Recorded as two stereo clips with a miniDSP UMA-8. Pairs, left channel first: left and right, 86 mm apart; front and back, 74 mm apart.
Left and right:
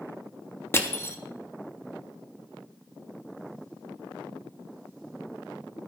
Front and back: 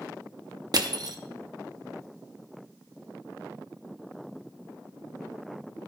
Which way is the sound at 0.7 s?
150° left.